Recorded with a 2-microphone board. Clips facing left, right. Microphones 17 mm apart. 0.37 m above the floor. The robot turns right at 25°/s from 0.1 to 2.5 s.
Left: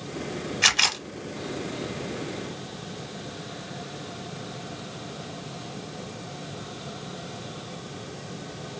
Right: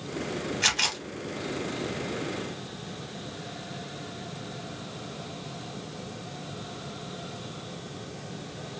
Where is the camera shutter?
15° left (ahead or behind), 0.6 m; by 1.0 s 30° left (ahead or behind), 0.6 m.